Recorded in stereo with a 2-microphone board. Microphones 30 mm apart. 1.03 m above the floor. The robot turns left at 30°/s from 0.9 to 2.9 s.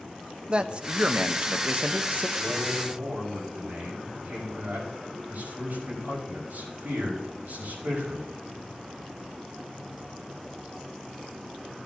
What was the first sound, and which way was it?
A man speaking, 35° right.